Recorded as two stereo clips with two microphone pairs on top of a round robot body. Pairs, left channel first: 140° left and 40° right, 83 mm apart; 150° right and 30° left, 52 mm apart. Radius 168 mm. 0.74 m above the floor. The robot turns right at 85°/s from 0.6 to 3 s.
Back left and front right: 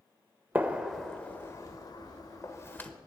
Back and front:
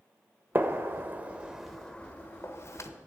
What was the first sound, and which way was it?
A gunshot, 10° left.